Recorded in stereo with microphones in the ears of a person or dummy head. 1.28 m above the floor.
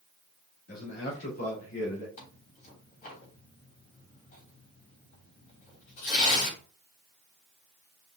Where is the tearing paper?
50° left (ahead or behind), 3 m.